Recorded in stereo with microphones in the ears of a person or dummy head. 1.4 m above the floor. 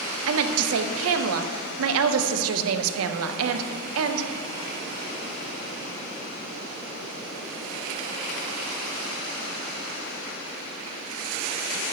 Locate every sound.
0.3 s a woman speaking: 75° right (ahead or behind), 0.5 m